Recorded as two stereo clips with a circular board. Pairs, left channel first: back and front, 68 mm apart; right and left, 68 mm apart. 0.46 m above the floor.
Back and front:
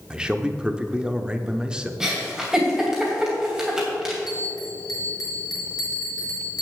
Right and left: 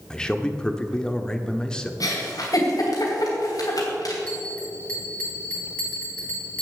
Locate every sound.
0.1 s a man speaking: 40° right, 0.7 m
2.0 s a giggle: 75° right, 2.5 m
4.3 s a bell: 160° right, 3 m